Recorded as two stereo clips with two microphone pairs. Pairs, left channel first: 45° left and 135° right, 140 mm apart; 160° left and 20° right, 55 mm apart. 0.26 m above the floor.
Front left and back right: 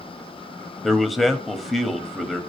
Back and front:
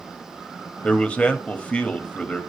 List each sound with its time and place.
0.8 s a man speaking: 140° left, 1.1 m